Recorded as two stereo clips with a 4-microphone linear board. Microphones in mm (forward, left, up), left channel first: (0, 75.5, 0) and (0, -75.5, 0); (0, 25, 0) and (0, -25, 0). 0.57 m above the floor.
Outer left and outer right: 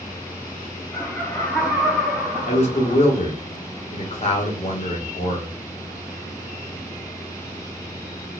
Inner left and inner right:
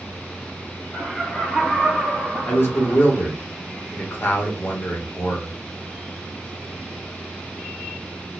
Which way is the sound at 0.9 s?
15° left (ahead or behind).